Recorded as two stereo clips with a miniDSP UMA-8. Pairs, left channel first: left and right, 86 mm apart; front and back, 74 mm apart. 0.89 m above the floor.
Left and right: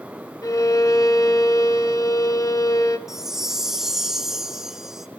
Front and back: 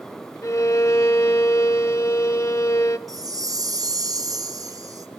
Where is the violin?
45° left, 0.9 m.